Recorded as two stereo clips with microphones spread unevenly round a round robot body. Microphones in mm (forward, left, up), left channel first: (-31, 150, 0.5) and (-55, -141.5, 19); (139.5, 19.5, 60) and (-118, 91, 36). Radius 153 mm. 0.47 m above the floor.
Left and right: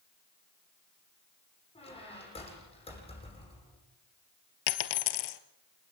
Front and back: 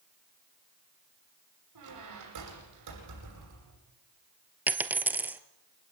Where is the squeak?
155° left, 9.5 m.